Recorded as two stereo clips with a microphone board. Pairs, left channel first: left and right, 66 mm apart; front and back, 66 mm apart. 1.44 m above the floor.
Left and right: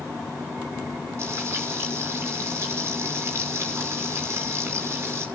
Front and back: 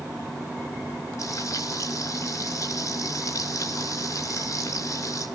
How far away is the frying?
About 6 m.